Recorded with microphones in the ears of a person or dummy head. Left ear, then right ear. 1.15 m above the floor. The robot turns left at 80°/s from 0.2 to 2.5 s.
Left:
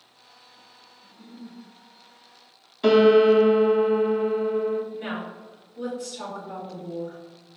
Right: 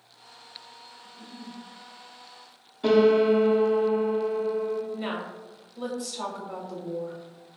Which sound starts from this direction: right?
A woman speaking, at 4.9 s.